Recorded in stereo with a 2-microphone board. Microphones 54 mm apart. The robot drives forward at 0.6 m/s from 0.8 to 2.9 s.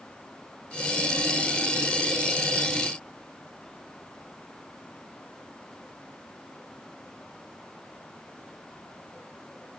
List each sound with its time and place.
Only background noise.